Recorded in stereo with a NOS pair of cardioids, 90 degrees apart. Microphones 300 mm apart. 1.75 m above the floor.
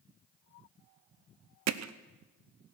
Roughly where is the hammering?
Ahead right.